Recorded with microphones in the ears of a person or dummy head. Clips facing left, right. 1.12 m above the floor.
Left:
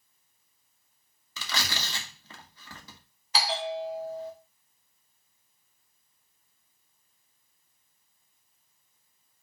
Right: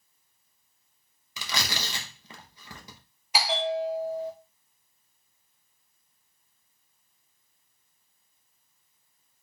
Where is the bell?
20° right (ahead or behind), 1.0 m.